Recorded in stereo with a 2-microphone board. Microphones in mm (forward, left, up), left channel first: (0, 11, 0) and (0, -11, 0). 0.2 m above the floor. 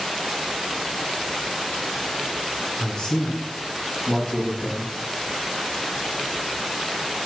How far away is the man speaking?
About 1.9 m.